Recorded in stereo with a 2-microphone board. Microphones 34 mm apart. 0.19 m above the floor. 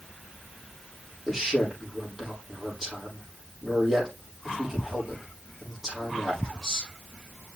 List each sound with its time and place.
1.3 s a man speaking: 5° right (ahead or behind), 6.5 m